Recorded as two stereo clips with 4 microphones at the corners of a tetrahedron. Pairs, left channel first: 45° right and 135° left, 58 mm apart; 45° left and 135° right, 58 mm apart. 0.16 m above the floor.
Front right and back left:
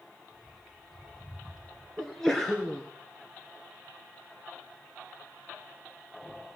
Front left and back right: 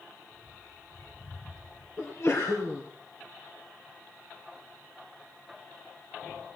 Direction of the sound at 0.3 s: 50° left.